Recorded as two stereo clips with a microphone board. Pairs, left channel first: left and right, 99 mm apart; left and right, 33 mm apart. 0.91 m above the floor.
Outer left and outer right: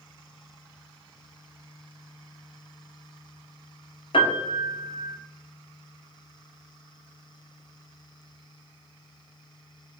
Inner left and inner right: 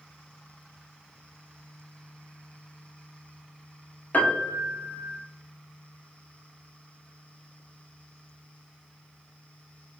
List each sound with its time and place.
4.1 s a piano: 60° left (ahead or behind), 0.9 m